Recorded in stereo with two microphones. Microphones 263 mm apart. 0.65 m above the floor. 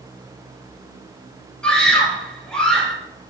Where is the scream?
5° left (ahead or behind), 4.5 m.